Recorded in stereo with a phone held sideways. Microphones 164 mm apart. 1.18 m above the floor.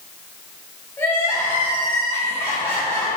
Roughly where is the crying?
Centre.